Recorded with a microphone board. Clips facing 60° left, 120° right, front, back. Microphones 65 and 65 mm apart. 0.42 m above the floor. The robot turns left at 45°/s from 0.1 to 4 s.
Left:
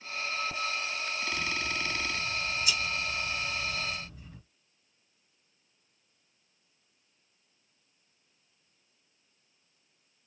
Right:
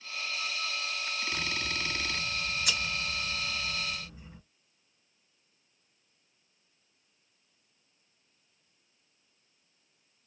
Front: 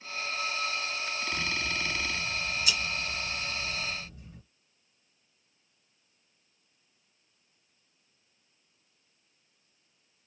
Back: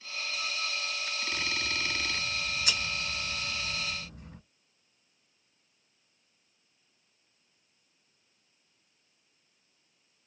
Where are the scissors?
80° right, 1.3 m; by 4.4 s 160° left, 1.3 m.